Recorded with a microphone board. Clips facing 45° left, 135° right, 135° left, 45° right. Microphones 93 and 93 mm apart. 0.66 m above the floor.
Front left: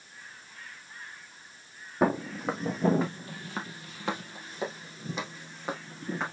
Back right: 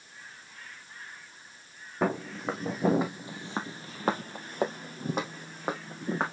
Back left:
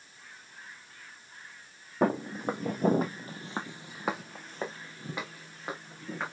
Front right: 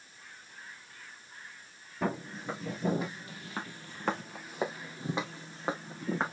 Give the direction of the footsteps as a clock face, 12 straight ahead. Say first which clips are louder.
Front left 3 dB, back left 6 dB; 8 o'clock.